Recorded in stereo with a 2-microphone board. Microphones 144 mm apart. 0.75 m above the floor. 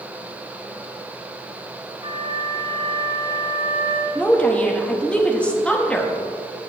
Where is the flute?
40° right (ahead or behind), 1.8 m.